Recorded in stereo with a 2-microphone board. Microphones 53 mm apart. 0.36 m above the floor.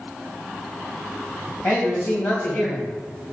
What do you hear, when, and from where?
1.6 s a man speaking: 50° left (ahead or behind), 2.5 m